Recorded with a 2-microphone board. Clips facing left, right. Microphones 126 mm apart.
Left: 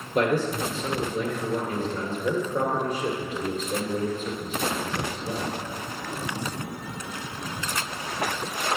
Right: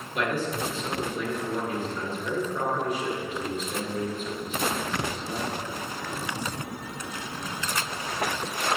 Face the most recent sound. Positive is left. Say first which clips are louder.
# left 5 dB
turn(degrees=40)  # may be behind; listen again after turning